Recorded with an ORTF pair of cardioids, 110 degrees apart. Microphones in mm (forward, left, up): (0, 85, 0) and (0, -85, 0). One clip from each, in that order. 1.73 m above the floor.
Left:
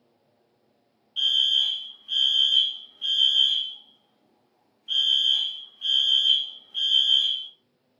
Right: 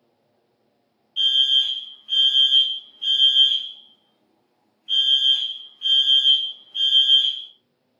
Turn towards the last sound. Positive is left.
turn(degrees=0)